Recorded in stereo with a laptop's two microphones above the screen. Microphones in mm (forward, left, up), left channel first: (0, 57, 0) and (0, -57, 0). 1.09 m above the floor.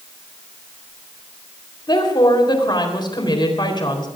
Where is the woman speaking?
40° left (ahead or behind), 3.5 m.